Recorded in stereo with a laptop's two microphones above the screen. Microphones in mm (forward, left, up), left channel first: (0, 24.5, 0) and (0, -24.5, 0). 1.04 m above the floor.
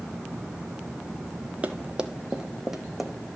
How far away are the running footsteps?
About 1.4 m.